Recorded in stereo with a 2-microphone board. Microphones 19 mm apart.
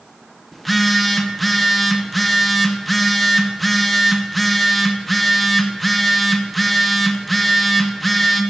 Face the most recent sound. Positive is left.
turn(degrees=0)  # may be behind; listen again after turning